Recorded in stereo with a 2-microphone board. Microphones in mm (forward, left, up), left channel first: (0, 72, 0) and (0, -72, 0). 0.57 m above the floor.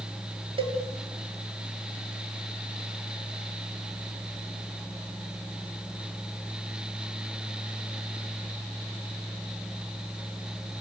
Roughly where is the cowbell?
Right.